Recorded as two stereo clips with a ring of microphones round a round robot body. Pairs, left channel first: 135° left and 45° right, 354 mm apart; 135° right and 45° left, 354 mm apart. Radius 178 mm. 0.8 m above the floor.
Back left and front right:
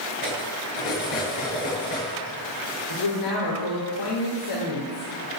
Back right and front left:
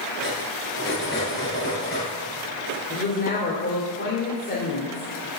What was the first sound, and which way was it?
Cutlery clinking, 160° left.